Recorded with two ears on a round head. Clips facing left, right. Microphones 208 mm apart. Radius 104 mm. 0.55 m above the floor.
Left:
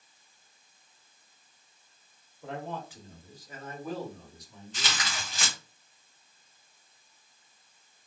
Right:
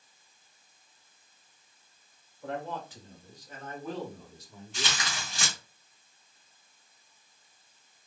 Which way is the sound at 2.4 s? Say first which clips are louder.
Right 1 dB; 10° left (ahead or behind).